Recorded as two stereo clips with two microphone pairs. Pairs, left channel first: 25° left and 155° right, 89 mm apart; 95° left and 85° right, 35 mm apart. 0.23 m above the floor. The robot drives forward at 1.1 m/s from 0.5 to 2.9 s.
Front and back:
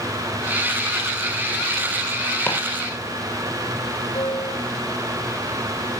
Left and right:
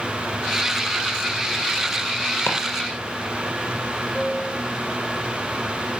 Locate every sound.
2.5 s chopping: 95° left, 5 m
4.2 s a piano: 35° left, 5.5 m